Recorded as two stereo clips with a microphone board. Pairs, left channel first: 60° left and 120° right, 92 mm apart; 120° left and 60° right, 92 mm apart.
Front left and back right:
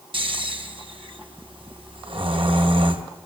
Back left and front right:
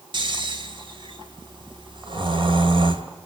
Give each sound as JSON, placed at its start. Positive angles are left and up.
{"t": 0.1, "sound": "snoring", "azimuth_deg": -95, "distance_m": 2.5}